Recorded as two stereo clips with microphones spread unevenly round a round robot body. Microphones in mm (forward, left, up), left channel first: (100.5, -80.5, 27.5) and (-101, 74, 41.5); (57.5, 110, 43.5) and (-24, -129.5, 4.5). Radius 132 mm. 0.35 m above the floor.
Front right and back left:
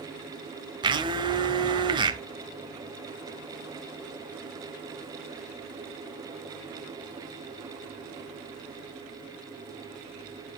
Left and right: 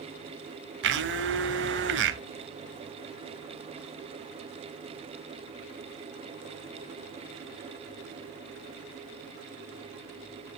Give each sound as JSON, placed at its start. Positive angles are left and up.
{"t": 0.8, "sound": "a blender", "azimuth_deg": -145, "distance_m": 0.9}